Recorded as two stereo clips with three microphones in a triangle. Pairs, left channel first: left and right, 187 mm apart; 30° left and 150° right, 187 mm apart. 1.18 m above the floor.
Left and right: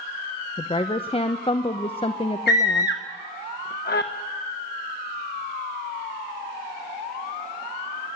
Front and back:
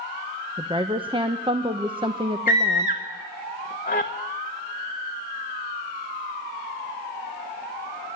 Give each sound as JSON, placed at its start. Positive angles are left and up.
{"t": 0.6, "sound": "a woman speaking", "azimuth_deg": 150, "distance_m": 0.8}
{"t": 2.5, "sound": "a scream", "azimuth_deg": 65, "distance_m": 1.0}